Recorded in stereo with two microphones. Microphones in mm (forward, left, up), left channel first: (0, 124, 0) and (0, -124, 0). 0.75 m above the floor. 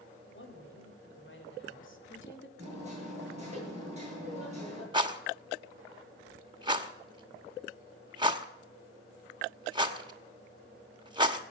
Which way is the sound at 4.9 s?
20° right (ahead or behind).